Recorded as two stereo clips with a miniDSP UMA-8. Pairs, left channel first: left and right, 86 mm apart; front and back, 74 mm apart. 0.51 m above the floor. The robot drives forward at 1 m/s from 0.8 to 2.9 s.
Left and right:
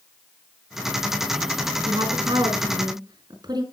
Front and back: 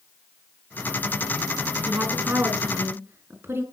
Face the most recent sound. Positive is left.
turn(degrees=-120)